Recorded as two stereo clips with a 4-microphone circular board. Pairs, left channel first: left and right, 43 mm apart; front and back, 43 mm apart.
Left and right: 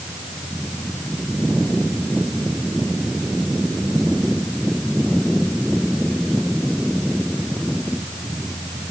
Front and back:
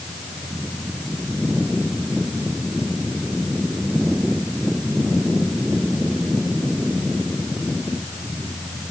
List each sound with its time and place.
Only background noise.